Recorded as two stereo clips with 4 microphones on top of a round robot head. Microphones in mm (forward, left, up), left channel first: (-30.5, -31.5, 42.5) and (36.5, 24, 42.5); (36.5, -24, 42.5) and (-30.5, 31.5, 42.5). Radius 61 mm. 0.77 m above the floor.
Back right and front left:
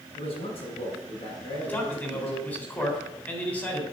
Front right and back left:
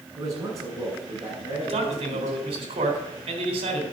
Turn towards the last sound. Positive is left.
turn(degrees=150)